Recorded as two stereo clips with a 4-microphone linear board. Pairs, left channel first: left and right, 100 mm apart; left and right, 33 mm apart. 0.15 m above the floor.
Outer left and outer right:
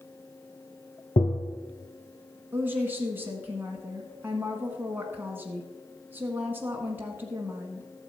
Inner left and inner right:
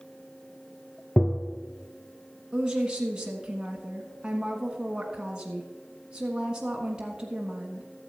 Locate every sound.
1.2 s tapping: 60° left (ahead or behind), 0.8 m
2.5 s a woman speaking: 20° right (ahead or behind), 1.4 m